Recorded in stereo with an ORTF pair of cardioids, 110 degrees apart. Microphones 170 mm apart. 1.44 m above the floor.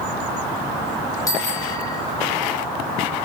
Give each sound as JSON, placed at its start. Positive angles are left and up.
{"t": 1.3, "sound": "a bicycle bell", "azimuth_deg": 20, "distance_m": 7.5}